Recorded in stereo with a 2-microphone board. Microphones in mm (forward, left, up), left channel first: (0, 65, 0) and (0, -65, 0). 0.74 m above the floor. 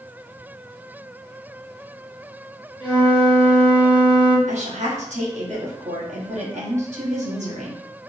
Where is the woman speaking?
60° right (ahead or behind), 1.5 m.